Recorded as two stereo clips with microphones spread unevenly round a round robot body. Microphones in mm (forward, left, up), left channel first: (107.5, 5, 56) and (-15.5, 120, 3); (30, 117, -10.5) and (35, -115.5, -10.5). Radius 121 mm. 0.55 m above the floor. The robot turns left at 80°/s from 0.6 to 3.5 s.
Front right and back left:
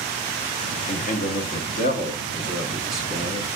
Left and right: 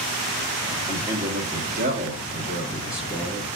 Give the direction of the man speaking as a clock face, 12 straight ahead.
12 o'clock.